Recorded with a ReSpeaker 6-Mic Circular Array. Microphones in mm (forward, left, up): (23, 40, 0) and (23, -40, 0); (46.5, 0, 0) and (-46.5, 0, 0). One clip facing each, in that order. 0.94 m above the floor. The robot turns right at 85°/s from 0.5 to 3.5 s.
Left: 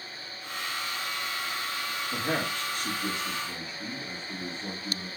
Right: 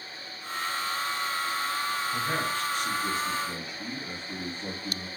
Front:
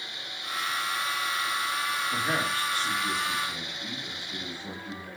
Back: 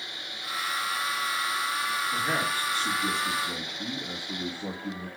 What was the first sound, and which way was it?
A man speaking, 70° left.